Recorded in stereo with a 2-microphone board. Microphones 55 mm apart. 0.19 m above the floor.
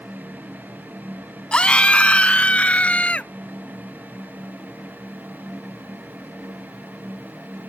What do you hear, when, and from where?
1.5 s a scream: 20° left (ahead or behind)